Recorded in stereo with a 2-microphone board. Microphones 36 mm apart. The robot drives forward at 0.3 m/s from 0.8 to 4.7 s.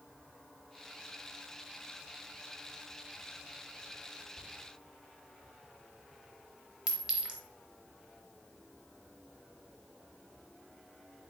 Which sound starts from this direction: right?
A clink, at 6.9 s.